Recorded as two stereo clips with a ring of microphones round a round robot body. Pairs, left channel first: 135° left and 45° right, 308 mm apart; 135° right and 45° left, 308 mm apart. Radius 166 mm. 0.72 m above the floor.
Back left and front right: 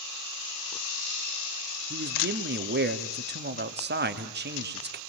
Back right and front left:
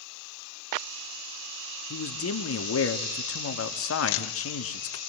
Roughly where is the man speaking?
Right.